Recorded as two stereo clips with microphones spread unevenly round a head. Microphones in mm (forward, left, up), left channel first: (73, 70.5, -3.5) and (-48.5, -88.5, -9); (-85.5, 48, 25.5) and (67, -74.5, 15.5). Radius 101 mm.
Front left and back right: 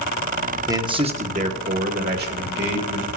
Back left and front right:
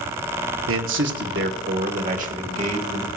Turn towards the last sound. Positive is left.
turn(degrees=-95)